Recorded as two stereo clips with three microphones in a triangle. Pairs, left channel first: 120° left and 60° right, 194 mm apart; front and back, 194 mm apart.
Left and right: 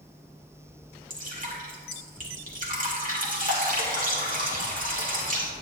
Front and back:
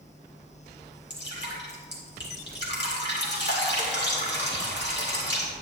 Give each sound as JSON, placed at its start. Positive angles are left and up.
{"t": 1.1, "sound": "dripping", "azimuth_deg": -20, "distance_m": 1.9}